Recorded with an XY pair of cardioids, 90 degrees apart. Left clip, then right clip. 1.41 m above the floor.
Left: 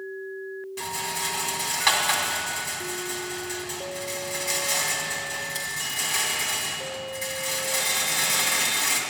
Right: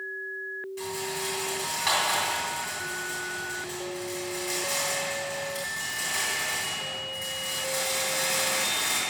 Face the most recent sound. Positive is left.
turn(degrees=60)